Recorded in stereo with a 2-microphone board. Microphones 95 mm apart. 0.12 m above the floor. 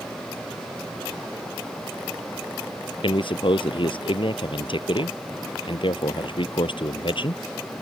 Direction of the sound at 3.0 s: 65° left (ahead or behind).